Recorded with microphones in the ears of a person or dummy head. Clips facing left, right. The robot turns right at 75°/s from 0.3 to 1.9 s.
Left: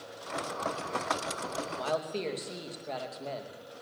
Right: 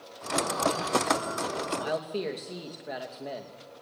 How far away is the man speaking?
About 2.5 m.